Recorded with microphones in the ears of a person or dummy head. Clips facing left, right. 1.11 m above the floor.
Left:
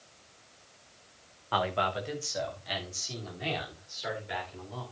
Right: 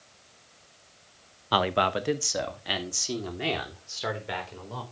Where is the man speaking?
50° right (ahead or behind), 0.9 m; by 4.8 s 75° right (ahead or behind), 4.5 m.